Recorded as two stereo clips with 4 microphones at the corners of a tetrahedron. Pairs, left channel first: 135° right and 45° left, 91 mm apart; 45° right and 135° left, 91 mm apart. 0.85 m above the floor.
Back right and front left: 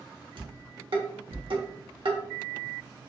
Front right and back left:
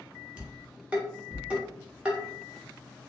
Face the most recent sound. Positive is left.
turn(degrees=60)